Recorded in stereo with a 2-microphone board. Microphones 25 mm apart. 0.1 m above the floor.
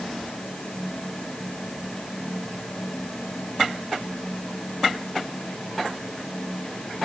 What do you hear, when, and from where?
Only background noise.